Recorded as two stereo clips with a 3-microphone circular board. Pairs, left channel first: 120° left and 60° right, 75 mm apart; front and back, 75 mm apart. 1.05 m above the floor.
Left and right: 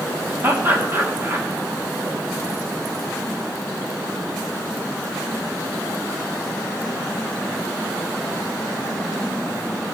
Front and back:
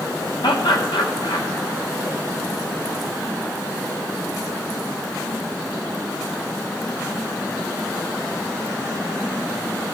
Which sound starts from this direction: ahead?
Laughter, at 0.4 s.